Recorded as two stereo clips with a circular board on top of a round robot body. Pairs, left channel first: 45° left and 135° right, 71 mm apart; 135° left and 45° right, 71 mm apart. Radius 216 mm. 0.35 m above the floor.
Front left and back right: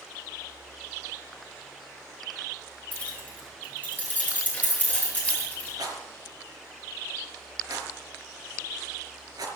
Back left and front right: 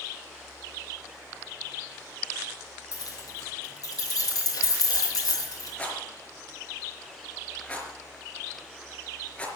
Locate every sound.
2.9 s keys jangling: 115° left, 7.5 m; by 5.7 s 110° left, 9 m
5.8 s a rattle: 155° right, 4.5 m